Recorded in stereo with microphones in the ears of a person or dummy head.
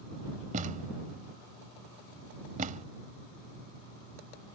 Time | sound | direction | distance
0.5 | a thud | 40° right (ahead or behind) | ?